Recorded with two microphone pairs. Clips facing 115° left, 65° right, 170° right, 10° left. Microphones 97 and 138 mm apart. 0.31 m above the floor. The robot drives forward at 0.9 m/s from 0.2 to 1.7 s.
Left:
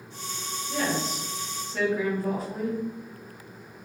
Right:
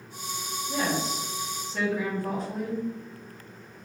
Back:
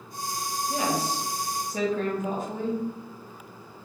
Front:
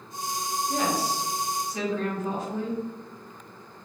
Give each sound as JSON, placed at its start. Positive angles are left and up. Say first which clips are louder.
{"t": 0.7, "sound": "a woman speaking", "louder": "even, even", "azimuth_deg": -100, "distance_m": 0.9}